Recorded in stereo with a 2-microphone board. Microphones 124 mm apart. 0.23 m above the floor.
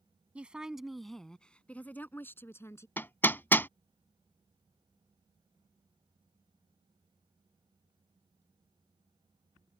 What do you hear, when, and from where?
0.3 s a woman speaking: 10° right (ahead or behind); by 2.9 s 25° left (ahead or behind)
3.0 s hammering: 15° left (ahead or behind)